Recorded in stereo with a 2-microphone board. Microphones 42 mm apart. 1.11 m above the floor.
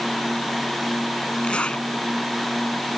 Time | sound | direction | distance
1.4 | a zipper | 30° left (ahead or behind) | ?